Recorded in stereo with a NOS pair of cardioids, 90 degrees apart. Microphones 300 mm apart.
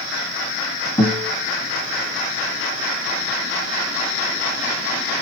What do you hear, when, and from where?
1.0 s a guitar: 20° left, 1.8 m